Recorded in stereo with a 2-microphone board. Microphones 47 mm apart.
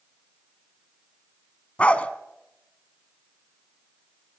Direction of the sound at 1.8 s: 25° left (ahead or behind).